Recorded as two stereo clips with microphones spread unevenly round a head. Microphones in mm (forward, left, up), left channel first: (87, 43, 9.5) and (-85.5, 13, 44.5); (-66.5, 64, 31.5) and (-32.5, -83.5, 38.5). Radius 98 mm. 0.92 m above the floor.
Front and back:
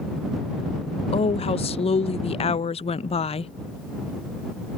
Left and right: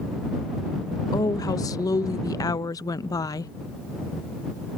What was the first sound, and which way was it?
A woman speaking, 40° left.